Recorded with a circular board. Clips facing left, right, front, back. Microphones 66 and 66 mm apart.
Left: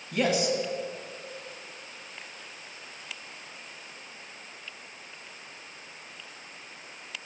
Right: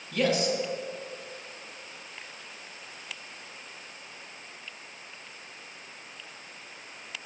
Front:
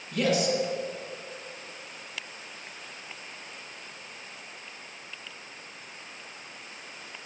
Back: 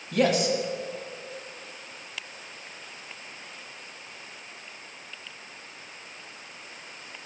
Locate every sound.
0.1 s a man speaking: 165° left, 1.4 m